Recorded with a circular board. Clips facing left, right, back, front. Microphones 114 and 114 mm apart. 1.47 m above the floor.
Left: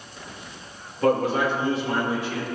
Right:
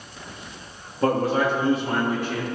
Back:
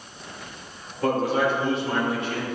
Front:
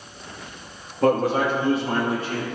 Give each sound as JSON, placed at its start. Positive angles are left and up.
{"t": 1.0, "sound": "a man speaking", "azimuth_deg": -35, "distance_m": 3.0}